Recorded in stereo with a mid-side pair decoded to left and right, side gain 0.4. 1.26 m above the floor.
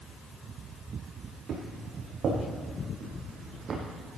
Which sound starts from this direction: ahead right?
Footsteps, at 1.5 s.